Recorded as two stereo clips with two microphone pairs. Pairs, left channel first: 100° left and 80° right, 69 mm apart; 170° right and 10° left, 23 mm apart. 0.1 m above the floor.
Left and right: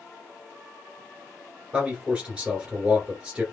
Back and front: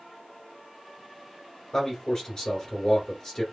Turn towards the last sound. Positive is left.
turn(degrees=-145)